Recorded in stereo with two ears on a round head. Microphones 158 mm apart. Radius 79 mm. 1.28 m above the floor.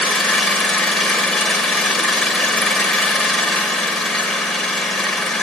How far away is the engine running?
About 1.9 m.